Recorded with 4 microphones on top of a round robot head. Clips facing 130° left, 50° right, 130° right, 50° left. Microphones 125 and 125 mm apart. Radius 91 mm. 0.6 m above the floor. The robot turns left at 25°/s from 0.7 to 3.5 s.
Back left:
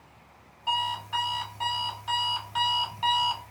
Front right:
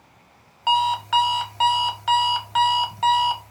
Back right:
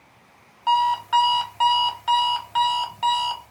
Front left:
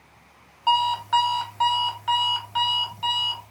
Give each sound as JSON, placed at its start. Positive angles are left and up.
{"t": 0.7, "sound": "an alarm clock", "azimuth_deg": -35, "distance_m": 0.6}